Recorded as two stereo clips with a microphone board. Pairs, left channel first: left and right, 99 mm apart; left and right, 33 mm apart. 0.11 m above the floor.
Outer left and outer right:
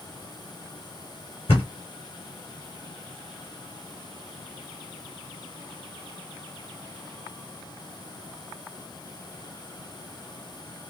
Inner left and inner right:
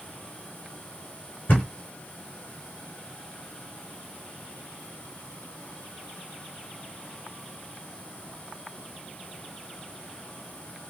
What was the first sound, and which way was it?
A thud, 70° left (ahead or behind).